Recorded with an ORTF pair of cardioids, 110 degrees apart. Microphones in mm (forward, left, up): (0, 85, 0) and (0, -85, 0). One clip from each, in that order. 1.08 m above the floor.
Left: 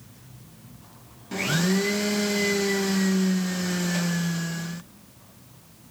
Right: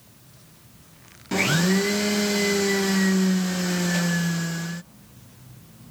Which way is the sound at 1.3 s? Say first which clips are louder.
Right 4 dB; 35° right.